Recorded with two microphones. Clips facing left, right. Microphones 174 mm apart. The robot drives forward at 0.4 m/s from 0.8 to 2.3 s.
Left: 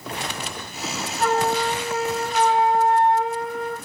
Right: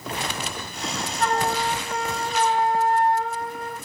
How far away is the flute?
About 0.7 m.